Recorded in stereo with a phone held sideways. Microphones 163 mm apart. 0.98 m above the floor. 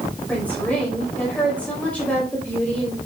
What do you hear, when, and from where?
0.3 s a woman speaking: 10° left (ahead or behind), 5 m